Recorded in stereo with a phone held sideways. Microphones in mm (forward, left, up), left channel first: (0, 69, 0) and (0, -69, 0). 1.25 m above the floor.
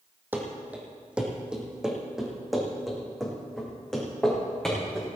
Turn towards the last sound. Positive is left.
turn(degrees=5)  # may be behind; listen again after turning